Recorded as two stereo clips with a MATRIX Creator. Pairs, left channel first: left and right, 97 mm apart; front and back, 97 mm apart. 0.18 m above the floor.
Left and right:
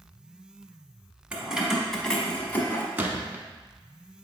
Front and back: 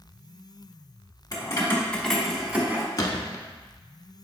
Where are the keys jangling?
20° right, 1.0 m; by 2.9 s 135° left, 1.0 m.